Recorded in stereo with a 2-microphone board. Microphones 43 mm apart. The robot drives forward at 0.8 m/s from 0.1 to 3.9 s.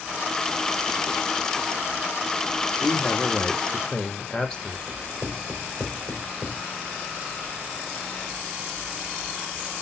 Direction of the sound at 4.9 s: 5° left (ahead or behind).